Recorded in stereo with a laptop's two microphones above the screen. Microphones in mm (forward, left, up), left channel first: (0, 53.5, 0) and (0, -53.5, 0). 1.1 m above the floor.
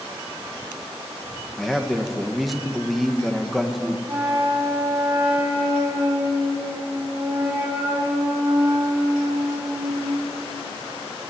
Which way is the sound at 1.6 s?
Centre (ahead or behind).